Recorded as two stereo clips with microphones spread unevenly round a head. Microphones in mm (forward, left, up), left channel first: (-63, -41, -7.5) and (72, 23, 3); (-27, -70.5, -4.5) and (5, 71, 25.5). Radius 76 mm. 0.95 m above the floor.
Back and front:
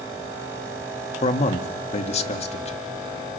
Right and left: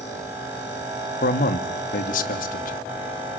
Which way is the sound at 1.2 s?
110° right.